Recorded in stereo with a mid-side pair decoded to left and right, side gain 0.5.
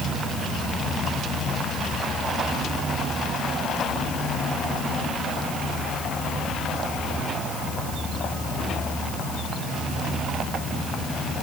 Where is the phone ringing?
No phone ringing in this recording.